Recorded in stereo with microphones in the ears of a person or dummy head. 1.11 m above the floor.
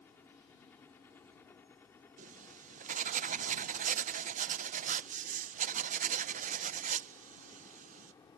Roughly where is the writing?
Right.